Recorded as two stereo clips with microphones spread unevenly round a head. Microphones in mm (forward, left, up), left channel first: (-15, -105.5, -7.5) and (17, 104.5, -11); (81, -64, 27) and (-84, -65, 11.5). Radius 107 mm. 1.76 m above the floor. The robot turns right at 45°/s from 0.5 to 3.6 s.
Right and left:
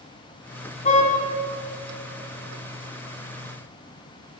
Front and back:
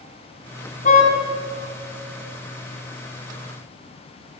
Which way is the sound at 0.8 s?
40° right.